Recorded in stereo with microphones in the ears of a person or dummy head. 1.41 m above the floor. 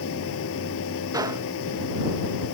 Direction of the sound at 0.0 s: 75° left (ahead or behind).